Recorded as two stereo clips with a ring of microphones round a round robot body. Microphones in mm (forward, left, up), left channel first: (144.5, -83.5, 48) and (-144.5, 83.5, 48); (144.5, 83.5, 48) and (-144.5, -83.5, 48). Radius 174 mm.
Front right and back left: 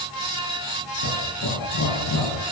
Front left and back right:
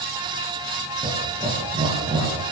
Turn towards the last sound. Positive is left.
turn(degrees=-75)